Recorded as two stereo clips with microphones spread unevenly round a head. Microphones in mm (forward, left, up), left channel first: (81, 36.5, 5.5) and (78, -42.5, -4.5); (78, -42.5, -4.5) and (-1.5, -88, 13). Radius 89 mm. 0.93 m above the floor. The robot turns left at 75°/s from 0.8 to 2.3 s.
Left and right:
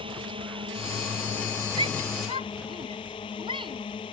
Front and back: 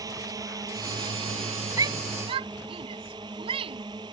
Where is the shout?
105° right; by 3.8 s 145° right.